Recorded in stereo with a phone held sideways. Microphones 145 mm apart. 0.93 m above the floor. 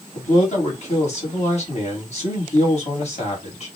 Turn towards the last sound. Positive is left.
turn(degrees=50)  # may be behind; listen again after turning